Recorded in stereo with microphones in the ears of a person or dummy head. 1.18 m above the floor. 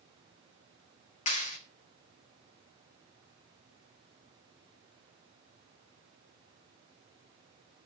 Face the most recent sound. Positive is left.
turn(degrees=50)  # may be behind; listen again after turning